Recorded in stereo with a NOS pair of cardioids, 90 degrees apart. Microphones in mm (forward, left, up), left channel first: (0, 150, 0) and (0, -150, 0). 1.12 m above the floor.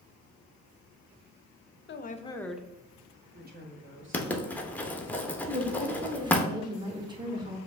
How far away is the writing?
About 0.8 m.